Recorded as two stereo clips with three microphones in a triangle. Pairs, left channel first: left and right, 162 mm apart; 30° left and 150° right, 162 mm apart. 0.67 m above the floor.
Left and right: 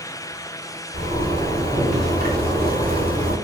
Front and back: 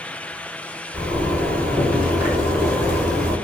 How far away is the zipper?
About 1.3 m.